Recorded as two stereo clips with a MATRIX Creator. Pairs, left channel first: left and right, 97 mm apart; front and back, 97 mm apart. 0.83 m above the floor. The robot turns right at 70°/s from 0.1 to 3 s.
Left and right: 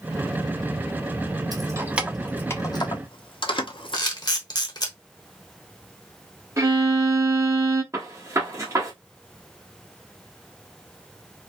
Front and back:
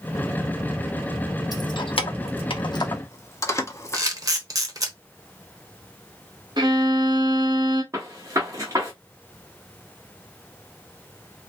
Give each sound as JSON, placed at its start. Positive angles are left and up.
{"t": 1.5, "sound": "keys jangling", "azimuth_deg": -45, "distance_m": 0.7}
{"t": 3.9, "sound": "a camera shutter", "azimuth_deg": 130, "distance_m": 1.0}
{"t": 6.6, "sound": "a violin", "azimuth_deg": -145, "distance_m": 1.3}
{"t": 7.9, "sound": "a gunshot", "azimuth_deg": -140, "distance_m": 1.4}